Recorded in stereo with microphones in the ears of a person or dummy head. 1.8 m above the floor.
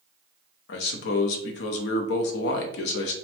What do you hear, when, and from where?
0.7 s a man speaking: 60° left (ahead or behind), 0.6 m